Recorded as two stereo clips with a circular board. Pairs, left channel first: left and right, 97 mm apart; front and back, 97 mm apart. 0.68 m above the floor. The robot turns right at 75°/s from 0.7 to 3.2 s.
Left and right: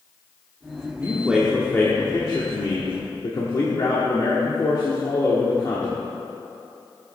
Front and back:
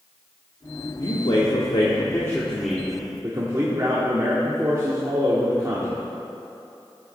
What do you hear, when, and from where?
1.0 s a man speaking: 35° right, 1.4 m; by 6.0 s 135° left, 1.4 m